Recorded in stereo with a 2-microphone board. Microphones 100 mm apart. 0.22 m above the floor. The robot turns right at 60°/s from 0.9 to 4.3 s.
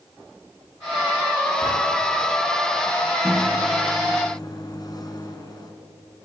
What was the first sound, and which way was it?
A drawer, 90° right.